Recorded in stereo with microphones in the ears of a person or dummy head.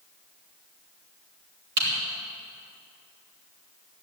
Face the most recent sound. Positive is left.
turn(degrees=-65)  # may be behind; listen again after turning